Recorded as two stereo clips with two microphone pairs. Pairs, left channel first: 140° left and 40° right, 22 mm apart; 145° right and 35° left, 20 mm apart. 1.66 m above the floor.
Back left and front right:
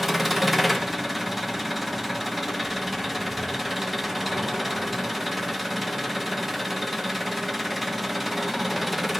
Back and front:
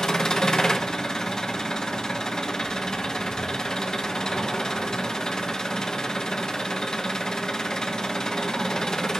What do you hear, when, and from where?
0.0 s an engine running: 130° right, 1.0 m